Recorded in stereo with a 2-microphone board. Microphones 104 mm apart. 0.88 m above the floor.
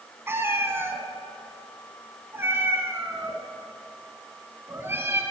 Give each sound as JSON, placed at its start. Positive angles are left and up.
{"t": 0.3, "sound": "a cat meowing", "side_deg": -25, "distance_m": 1.4}